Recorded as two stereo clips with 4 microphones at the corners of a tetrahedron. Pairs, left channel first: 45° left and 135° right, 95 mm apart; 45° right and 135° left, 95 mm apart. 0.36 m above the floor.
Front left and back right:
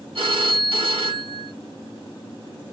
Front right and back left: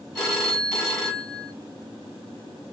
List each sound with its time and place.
0.1 s a phone ringing: 135° right, 1.7 m